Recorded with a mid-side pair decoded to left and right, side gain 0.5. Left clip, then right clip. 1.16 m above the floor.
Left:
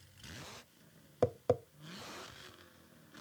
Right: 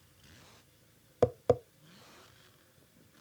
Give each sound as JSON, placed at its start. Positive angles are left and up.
{"t": 1.2, "sound": "tapping", "azimuth_deg": -20, "distance_m": 0.6}